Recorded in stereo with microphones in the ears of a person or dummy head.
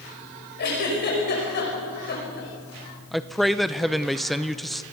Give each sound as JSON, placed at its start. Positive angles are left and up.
{"t": 0.6, "sound": "a giggle", "side_deg": 50, "distance_m": 5.5}
{"t": 3.1, "sound": "a man speaking", "side_deg": 0, "distance_m": 0.6}